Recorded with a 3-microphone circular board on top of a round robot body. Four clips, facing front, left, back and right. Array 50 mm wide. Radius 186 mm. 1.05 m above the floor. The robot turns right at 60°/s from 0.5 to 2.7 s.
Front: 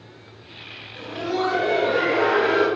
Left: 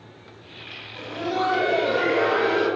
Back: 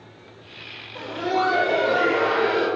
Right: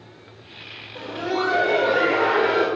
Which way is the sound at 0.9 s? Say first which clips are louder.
Right 1 dB, back 2 dB; 140° right.